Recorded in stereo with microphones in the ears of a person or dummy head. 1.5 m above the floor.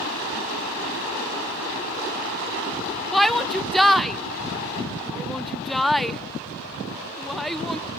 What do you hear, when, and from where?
3.1 s a shout: 10° left (ahead or behind), 0.6 m